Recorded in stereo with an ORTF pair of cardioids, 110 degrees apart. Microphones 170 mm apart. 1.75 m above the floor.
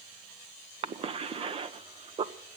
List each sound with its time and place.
0.8 s a cough: 35° right, 1.1 m